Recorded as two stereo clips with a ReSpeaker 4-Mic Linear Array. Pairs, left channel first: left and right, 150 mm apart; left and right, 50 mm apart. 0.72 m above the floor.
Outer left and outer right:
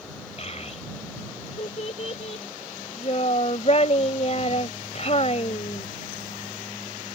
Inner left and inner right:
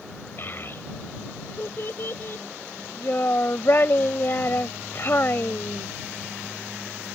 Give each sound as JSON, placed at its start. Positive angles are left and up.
{"t": 0.4, "sound": "a child speaking", "side_deg": 45}